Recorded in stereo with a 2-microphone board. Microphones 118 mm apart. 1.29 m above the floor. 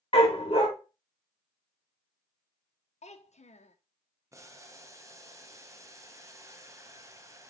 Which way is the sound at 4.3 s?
25° right (ahead or behind).